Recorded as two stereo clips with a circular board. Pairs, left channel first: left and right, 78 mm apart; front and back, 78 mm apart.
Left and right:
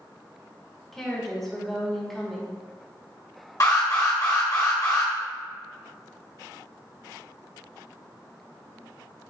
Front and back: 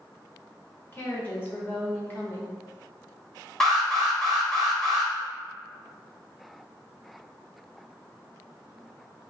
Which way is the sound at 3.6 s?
85° left.